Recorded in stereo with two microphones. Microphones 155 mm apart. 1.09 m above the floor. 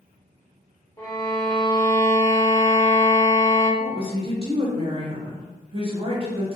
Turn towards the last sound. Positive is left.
turn(degrees=-40)  # may be behind; listen again after turning